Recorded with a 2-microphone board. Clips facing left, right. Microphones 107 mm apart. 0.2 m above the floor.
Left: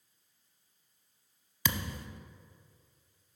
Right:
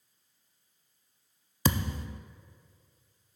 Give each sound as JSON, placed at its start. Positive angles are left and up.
{"t": 1.6, "sound": "a thud", "side_deg": -35, "distance_m": 0.5}